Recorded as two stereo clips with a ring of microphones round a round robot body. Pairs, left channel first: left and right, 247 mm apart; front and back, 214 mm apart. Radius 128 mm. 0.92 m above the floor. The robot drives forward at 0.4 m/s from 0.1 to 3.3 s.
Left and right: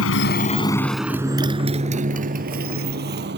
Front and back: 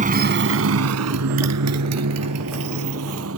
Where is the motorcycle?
125° left; by 3.4 s 140° right.